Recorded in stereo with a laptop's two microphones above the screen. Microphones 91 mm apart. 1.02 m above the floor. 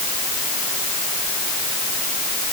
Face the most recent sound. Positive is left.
No sound to turn to.